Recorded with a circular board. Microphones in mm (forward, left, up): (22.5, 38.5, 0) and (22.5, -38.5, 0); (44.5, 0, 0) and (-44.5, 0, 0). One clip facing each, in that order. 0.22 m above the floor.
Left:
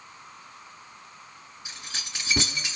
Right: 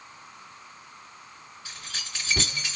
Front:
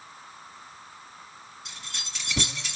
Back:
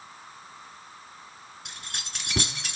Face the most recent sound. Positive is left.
turn(degrees=160)